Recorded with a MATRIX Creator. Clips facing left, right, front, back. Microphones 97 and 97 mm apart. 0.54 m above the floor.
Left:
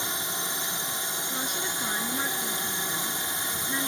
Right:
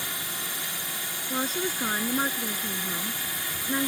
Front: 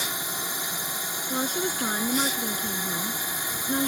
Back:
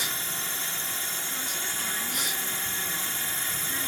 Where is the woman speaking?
35° right.